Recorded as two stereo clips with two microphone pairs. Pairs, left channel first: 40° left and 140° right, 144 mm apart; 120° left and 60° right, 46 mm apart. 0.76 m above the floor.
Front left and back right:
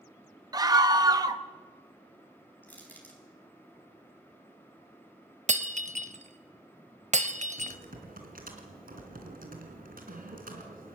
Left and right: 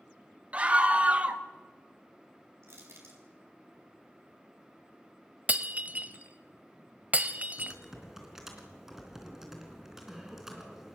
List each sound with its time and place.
0.5 s a scream: 95° right, 1.1 m
2.6 s crushing: 35° right, 4.5 m
5.5 s breaking glass: 110° right, 0.9 m
7.6 s typing on a keyboard: 140° right, 3 m